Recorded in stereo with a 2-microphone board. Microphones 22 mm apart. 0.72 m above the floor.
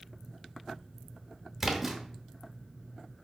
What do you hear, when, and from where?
1.6 s a splash: 15° right (ahead or behind), 0.7 m